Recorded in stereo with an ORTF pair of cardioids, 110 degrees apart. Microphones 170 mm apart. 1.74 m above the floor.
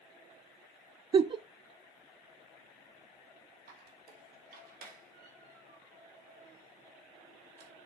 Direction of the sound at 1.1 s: 30° right.